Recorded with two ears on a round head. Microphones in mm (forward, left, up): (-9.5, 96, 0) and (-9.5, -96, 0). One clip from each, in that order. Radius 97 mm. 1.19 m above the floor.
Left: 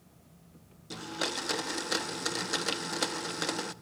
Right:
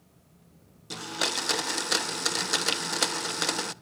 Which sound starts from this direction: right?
A blender, at 0.9 s.